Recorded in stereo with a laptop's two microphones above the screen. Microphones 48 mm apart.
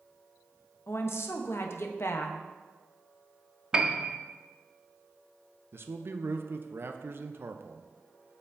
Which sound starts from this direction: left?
A woman speaking, at 0.9 s.